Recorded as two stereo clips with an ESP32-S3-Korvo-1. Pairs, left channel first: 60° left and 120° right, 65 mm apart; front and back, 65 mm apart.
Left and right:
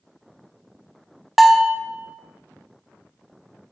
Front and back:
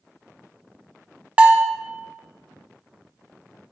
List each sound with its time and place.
1.4 s a bell: 155° left, 0.6 m